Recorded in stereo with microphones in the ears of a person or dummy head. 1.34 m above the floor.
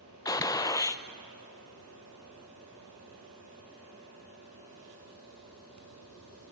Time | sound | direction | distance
0.2 | a gunshot | 20° left (ahead or behind) | 0.6 m